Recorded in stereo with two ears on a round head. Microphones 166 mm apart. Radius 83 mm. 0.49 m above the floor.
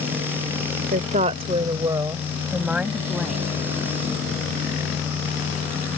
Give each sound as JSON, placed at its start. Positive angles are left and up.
{"t": 0.9, "sound": "a woman speaking", "side_deg": -45}